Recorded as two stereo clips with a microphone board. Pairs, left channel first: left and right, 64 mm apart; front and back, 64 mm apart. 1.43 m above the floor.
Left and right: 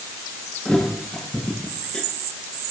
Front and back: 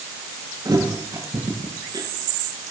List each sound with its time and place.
0.7 s a thud: 170° left, 9.5 m